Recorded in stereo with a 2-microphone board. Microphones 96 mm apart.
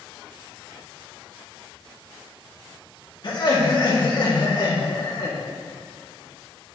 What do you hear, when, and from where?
3.2 s laughter: 50° left (ahead or behind), 1.7 m